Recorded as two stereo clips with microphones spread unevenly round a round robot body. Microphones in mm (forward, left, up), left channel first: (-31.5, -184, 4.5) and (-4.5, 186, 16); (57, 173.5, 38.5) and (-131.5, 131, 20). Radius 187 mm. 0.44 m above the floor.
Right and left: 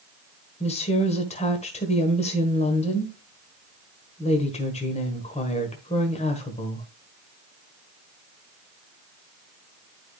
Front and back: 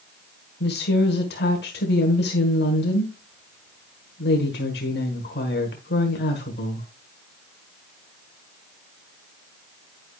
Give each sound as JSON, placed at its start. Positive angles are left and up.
{"t": 0.6, "sound": "a woman speaking", "azimuth_deg": -25, "distance_m": 1.4}